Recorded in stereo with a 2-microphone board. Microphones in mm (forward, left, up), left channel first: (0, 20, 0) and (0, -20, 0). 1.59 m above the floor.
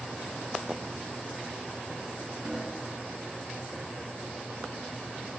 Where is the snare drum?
45° right (ahead or behind), 3 m.